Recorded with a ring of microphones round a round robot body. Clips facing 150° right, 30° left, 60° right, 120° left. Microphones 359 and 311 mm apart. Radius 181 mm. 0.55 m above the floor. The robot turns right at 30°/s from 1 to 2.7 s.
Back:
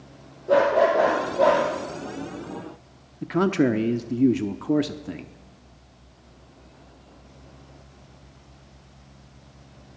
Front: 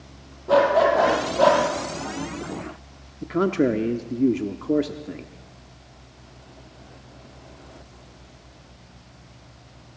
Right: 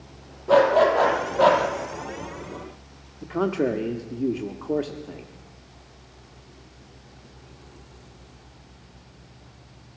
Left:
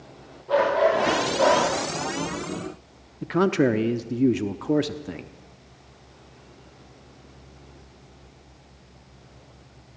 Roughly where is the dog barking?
Ahead right.